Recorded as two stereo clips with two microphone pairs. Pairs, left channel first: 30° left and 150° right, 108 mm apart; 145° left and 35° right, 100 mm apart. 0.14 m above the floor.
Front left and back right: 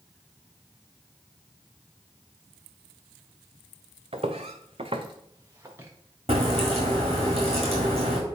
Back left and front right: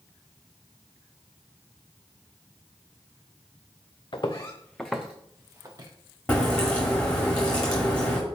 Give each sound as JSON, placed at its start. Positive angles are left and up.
{"t": 4.1, "sound": "footsteps", "azimuth_deg": -170, "distance_m": 0.7}
{"t": 6.3, "sound": "a crack", "azimuth_deg": -130, "distance_m": 1.8}